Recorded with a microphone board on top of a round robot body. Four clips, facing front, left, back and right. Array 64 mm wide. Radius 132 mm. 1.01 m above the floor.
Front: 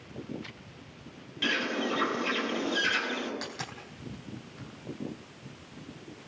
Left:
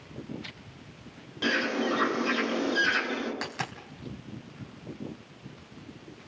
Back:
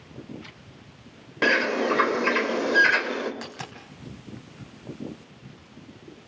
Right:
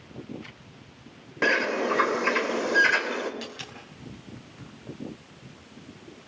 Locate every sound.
1.4 s a bird: 145° right, 3.5 m
3.4 s a dropped coin: 100° left, 3 m